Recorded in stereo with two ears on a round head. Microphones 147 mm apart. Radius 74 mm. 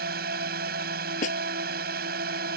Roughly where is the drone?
Right.